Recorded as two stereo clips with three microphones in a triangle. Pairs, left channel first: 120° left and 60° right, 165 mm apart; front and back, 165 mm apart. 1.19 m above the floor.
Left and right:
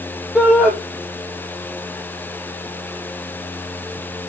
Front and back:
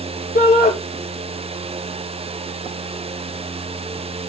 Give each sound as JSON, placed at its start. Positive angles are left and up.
{"t": 0.3, "sound": "a shout", "azimuth_deg": 25, "distance_m": 2.5}